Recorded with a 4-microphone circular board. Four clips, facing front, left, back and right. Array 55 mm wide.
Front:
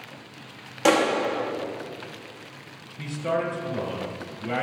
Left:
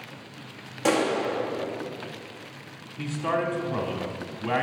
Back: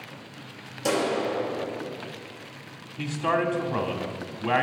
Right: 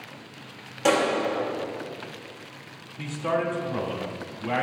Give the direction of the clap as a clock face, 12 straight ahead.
12 o'clock.